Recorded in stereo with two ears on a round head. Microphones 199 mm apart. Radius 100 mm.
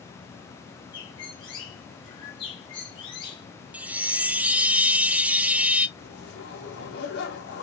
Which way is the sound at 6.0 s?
50° left (ahead or behind).